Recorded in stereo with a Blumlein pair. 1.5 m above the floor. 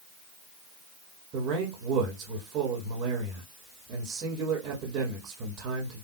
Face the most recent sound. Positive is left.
turn(degrees=-35)